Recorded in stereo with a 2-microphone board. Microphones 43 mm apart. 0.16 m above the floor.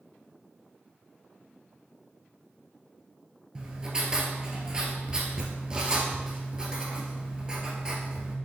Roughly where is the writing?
Centre.